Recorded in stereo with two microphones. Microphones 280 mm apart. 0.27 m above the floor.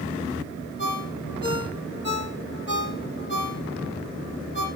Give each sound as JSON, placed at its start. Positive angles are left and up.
{"t": 0.8, "sound": "a ringtone", "side_deg": 35, "distance_m": 5.0}